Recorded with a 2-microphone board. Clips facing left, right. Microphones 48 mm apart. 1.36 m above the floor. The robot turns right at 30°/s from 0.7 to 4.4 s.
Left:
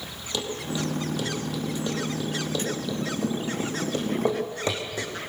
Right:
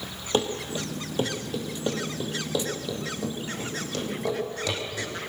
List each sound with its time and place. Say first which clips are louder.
0.3 s running footsteps: right 3 dB; 40° right (ahead or behind), 2.5 m; by 5.1 s 30° left (ahead or behind), 4.5 m